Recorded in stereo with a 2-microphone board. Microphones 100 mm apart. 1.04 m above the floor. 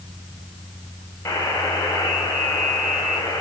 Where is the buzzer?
25° left (ahead or behind), 4 m.